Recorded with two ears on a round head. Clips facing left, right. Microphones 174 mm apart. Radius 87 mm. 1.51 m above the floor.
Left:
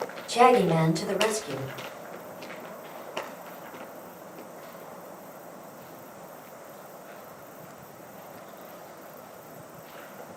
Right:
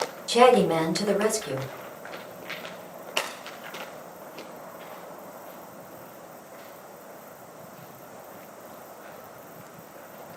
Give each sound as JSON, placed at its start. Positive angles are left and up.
{"t": 0.3, "sound": "a woman speaking", "side_deg": -80, "distance_m": 1.6}